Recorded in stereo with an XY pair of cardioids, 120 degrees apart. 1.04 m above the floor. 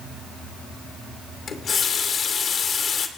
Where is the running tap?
40° left, 2.5 m.